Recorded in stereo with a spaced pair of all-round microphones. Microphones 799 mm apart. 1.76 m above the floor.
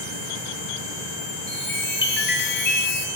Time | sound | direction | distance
1.5 | a chime | 15° left (ahead or behind) | 0.6 m